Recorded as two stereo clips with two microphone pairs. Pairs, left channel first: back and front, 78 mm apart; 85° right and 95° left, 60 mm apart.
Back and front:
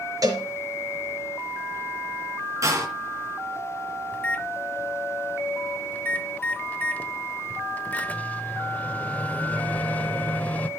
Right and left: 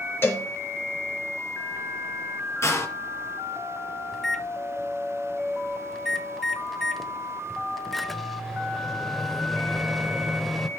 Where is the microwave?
170° right, 0.7 m.